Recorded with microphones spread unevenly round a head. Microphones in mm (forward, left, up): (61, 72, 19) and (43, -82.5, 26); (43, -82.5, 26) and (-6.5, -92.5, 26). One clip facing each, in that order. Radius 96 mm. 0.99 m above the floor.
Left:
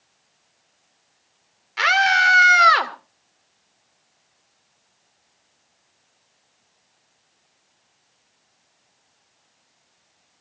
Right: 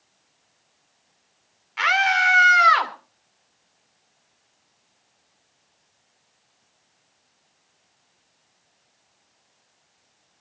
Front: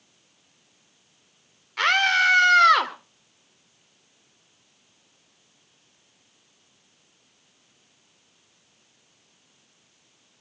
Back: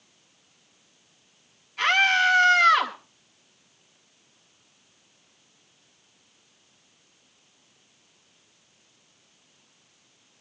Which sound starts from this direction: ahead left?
A scream, at 1.8 s.